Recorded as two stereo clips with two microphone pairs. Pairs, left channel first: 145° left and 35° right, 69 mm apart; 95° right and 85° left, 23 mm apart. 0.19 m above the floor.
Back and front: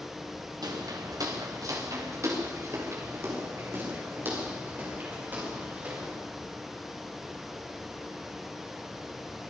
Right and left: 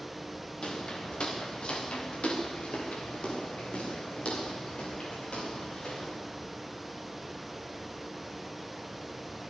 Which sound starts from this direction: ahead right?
Footsteps, at 0.6 s.